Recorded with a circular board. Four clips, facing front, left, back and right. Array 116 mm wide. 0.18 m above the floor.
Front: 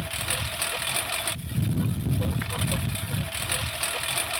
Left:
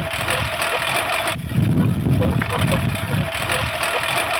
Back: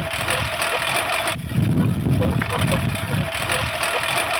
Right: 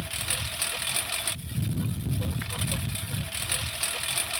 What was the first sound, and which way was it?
A lawn mower, 125° left.